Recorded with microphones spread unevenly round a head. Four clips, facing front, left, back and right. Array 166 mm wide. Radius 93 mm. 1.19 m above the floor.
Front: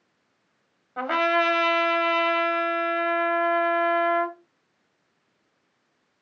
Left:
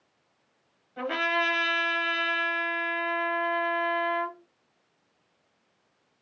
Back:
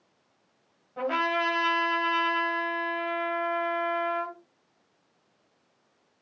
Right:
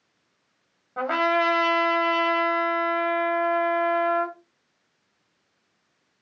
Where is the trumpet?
70° right, 1.2 m.